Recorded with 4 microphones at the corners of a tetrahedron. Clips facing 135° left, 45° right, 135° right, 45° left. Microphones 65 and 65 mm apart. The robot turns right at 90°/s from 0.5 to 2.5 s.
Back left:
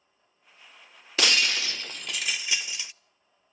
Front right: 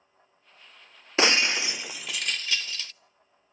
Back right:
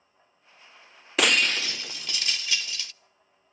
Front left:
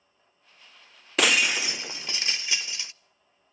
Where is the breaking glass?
45° right, 0.6 m; by 2.9 s 75° left, 0.6 m.